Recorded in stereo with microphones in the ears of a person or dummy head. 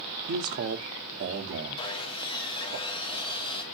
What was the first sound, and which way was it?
A man speaking, 55° right (ahead or behind).